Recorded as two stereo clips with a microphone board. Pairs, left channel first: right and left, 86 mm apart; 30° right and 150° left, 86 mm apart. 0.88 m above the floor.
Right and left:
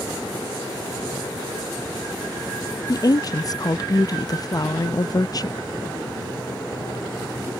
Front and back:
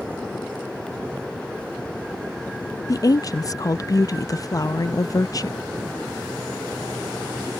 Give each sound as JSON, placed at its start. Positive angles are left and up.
{"t": 2.9, "sound": "a woman speaking", "azimuth_deg": -65}